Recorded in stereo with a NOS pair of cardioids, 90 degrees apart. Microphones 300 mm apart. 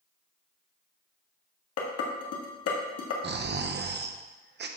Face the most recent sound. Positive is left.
turn(degrees=-35)